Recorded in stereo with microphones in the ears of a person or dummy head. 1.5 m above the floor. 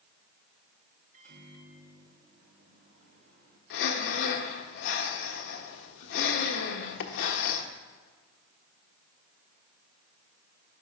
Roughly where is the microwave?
Right.